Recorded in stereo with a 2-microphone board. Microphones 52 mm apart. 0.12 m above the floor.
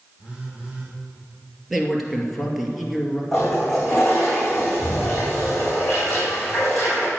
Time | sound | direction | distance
0.2 | a phone buzzing | 15° right (ahead or behind) | 4.5 m
1.7 | a man speaking | 5° right (ahead or behind) | 2.5 m
3.3 | a toilet flushing | 5° left (ahead or behind) | 4.5 m